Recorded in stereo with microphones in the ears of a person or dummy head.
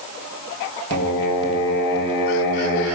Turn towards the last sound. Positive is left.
turn(degrees=60)  # may be behind; listen again after turning